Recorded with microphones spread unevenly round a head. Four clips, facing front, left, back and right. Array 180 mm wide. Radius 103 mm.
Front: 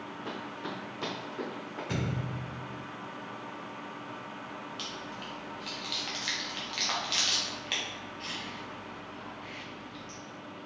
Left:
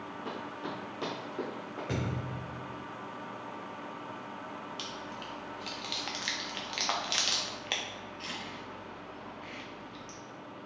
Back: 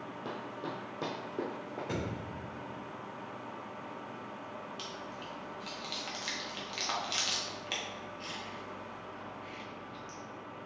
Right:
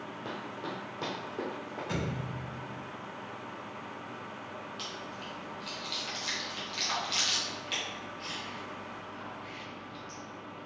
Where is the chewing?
90° left, 0.5 m.